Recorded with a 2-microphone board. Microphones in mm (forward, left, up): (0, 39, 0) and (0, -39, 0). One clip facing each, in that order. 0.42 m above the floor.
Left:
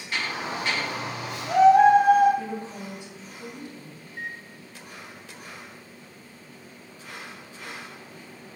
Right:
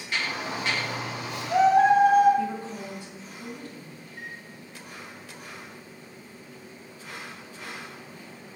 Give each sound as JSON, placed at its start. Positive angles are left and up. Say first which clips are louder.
{"t": 0.1, "sound": "a shout", "louder": "left 1 dB", "side_deg": 25, "distance_m": 1.5}
{"t": 2.4, "sound": "a woman speaking", "louder": "right 3 dB", "side_deg": 20, "distance_m": 2.5}
{"t": 4.1, "sound": "a microwave", "louder": "left 6 dB", "side_deg": 55, "distance_m": 1.8}